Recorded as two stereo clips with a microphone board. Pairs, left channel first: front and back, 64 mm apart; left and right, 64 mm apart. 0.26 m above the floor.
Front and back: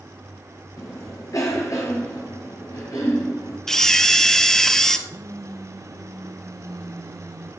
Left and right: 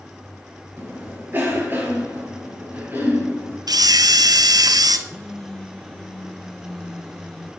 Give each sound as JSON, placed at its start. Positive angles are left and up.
{"t": 0.8, "sound": "a cough", "azimuth_deg": -30, "distance_m": 6.0}
{"t": 3.7, "sound": "a camera shutter", "azimuth_deg": -80, "distance_m": 1.1}
{"t": 5.1, "sound": "a phone buzzing", "azimuth_deg": 170, "distance_m": 1.9}